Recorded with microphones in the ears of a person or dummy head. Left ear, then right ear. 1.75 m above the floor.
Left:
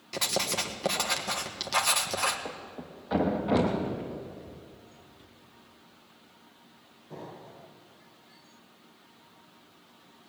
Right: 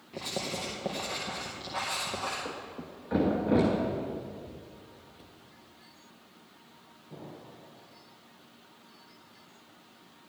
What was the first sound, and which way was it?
Writing, 75° left (ahead or behind).